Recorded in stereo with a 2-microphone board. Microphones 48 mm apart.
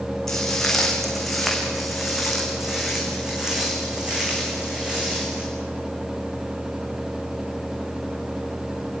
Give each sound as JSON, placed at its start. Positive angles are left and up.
{"t": 0.3, "sound": "footsteps", "side_deg": 10, "distance_m": 5.0}